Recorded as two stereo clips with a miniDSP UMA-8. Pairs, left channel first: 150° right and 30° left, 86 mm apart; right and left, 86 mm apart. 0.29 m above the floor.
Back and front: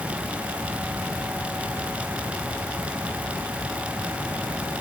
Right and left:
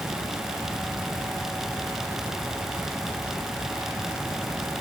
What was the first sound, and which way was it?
Only background noise.